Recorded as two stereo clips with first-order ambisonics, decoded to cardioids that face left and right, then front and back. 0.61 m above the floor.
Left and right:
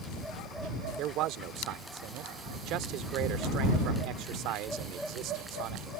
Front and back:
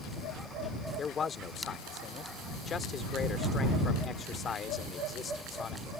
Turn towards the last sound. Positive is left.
turn(degrees=-65)